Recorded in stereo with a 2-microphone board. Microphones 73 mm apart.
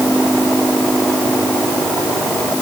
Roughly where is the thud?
I don't hear a thud.